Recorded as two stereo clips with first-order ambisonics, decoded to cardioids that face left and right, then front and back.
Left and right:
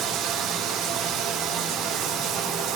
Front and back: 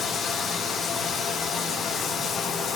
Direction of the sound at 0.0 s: 60° right.